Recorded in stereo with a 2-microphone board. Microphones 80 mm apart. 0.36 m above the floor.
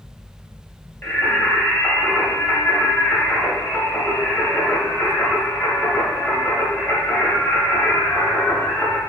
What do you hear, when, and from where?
1.0 s singing: 25° left (ahead or behind), 0.7 m